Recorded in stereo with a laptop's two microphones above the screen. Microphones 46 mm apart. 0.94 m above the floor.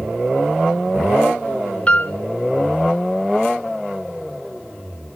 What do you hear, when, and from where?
1.9 s a piano: 30° left (ahead or behind), 1.3 m